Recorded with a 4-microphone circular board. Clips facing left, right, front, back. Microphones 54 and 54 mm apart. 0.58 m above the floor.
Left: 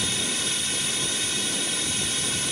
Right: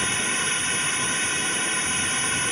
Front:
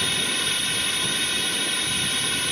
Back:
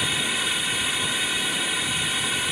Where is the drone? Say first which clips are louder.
Right 4 dB, back 1 dB; 105° right.